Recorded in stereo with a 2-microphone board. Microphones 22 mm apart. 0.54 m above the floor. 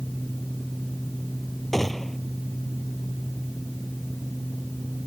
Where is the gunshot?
15° left (ahead or behind).